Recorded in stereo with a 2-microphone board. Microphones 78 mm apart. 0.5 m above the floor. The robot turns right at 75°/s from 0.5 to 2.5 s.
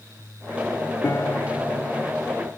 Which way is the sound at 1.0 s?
65° left.